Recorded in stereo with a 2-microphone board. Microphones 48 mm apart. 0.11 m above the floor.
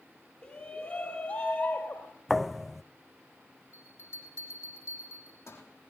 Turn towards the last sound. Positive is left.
turn(degrees=65)  # may be behind; listen again after turning